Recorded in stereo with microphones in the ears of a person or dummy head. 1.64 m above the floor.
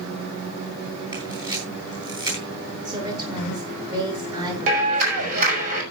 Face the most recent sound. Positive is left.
turn(degrees=-50)  # may be behind; listen again after turning